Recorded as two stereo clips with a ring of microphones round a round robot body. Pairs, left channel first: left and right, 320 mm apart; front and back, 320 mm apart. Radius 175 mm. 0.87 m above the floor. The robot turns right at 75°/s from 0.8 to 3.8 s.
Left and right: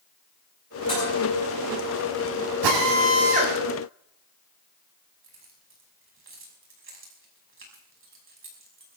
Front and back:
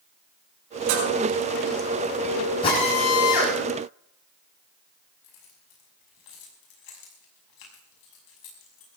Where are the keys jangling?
35° right, 6 m.